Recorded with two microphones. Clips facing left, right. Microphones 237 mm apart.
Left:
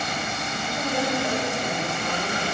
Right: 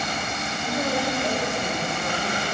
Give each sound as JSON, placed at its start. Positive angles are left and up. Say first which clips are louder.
{"t": 0.7, "sound": "a woman speaking", "louder": "right 1 dB", "side_deg": -45, "distance_m": 5.5}